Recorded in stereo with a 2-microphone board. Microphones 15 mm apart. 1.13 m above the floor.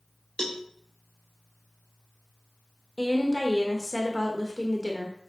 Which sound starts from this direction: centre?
A woman speaking, at 3.0 s.